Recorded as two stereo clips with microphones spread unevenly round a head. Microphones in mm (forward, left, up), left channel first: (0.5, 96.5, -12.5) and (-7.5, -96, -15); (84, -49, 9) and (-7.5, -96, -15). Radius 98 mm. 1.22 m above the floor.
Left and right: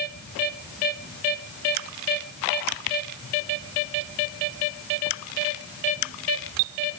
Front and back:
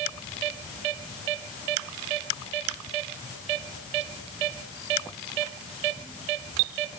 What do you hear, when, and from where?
Only background noise.